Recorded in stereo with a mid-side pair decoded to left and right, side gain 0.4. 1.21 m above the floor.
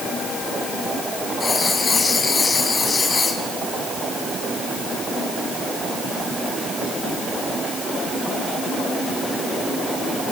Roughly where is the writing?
Ahead left.